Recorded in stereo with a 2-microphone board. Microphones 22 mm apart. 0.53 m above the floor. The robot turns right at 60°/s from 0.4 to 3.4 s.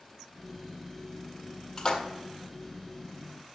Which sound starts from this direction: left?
A splash, at 1.8 s.